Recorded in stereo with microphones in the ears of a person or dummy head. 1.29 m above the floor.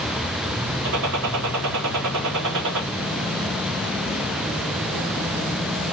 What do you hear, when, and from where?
0.8 s a gunshot: 80° right, 1.5 m